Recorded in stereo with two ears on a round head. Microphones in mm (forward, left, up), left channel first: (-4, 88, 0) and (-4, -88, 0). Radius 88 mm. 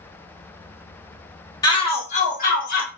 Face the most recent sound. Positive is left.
turn(degrees=50)  # may be behind; listen again after turning